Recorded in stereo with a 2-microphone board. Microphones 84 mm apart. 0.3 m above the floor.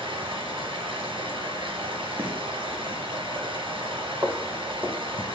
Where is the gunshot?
25° right (ahead or behind), 2.5 m.